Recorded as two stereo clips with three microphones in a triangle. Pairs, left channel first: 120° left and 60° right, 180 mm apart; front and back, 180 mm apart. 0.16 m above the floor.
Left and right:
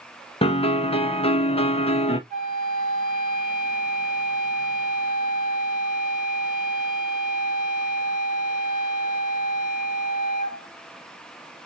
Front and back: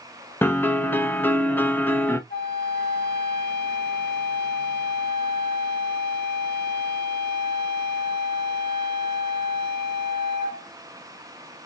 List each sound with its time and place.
0.4 s a piano: 75° left, 0.7 m
2.3 s a flute: 15° right, 1.4 m